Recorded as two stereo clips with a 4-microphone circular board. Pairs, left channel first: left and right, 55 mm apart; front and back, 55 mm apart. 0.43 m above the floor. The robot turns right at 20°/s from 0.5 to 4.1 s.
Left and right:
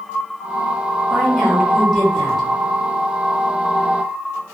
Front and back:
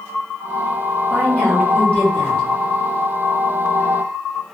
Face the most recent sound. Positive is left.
turn(degrees=40)